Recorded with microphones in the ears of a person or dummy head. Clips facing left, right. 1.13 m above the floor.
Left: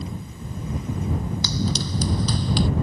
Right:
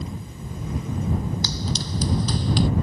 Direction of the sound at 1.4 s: 65° left (ahead or behind).